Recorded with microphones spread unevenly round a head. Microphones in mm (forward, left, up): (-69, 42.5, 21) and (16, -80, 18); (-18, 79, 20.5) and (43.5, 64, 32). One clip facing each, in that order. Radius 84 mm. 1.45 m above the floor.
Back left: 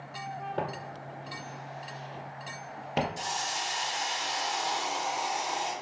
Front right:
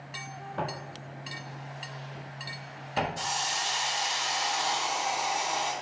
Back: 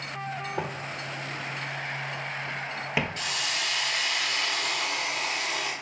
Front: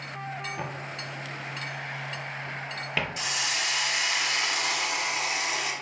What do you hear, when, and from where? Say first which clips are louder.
0.6 s footsteps: front right 3 dB, back 2 dB; 130° left, 2.5 m; by 3.1 s 85° left, 1.9 m
3.2 s a hiss: front right 1 dB, front 1 dB; 55° left, 1.9 m